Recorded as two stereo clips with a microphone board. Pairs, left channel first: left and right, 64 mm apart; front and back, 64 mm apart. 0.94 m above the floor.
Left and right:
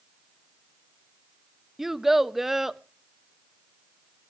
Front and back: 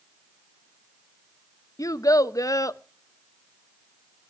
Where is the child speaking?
5° right, 0.6 m.